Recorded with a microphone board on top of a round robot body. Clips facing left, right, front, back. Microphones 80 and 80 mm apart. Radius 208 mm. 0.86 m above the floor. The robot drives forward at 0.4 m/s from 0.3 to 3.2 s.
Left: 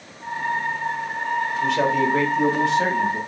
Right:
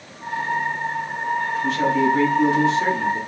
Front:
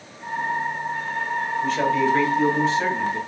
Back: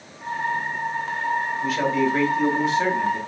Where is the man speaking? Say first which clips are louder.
Right 1 dB, front 2 dB; 95° left, 3 m; by 3.2 s 105° left, 3.5 m.